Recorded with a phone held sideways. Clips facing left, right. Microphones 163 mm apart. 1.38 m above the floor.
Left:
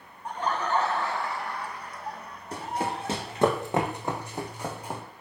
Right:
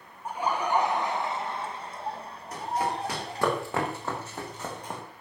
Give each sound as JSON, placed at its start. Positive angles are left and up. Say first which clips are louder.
{"t": 0.2, "sound": "laughter", "louder": "right 1 dB", "side_deg": -5, "distance_m": 1.4}
{"t": 2.5, "sound": "running footsteps", "louder": "right 1 dB", "side_deg": 30, "distance_m": 4.5}